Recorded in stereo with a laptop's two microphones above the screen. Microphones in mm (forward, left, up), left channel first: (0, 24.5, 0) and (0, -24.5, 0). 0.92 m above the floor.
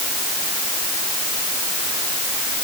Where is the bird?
No bird in this recording.